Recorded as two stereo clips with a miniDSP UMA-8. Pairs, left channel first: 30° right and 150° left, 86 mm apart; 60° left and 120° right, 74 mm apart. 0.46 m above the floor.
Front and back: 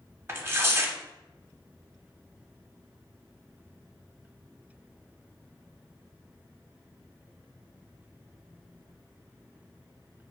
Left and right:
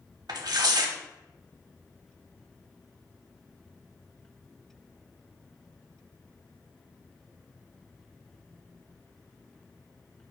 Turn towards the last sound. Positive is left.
turn(degrees=-150)